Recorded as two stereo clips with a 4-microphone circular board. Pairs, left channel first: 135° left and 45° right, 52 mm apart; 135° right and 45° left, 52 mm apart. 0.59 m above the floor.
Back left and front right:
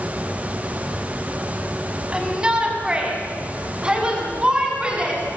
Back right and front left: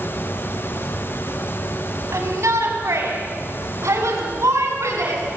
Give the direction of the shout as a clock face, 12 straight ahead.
11 o'clock.